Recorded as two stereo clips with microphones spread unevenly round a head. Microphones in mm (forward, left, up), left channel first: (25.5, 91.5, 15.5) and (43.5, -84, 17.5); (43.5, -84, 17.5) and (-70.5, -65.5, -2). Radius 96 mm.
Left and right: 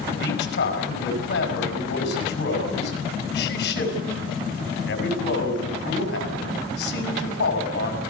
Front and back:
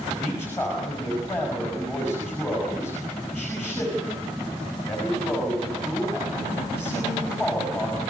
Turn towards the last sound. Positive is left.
turn(degrees=70)